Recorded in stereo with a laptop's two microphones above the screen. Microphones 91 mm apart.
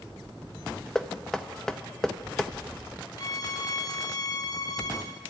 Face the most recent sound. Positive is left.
turn(degrees=45)  # may be behind; listen again after turning